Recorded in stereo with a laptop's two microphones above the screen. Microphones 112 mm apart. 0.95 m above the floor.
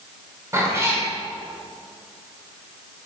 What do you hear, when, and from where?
0.5 s a cat meowing: 25° right (ahead or behind), 1.7 m